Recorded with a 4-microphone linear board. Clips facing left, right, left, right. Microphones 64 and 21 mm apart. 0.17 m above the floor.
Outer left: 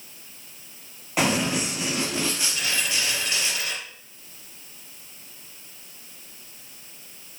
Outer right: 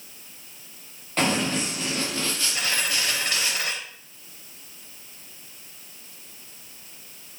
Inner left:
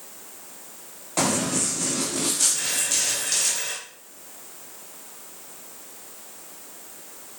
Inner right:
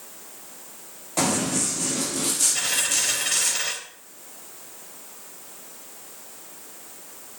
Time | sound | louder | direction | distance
1.2 | running footsteps | outer left 1 dB, even | 10° left (ahead or behind) | 5.5 m
2.5 | a dropped coin | outer right 1 dB, inner right 2 dB | 50° right (ahead or behind) | 4 m